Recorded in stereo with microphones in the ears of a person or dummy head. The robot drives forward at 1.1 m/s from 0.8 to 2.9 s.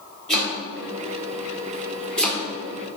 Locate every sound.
0.3 s chopping: 5° left (ahead or behind), 3 m